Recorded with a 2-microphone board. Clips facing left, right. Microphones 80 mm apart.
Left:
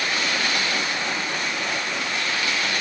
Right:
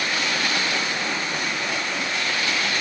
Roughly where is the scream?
No scream in this recording.